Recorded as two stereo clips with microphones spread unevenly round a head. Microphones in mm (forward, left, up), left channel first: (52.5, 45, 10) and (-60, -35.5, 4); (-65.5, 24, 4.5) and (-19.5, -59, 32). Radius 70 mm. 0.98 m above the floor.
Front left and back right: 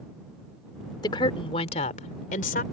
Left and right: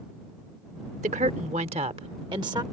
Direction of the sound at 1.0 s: 25° right.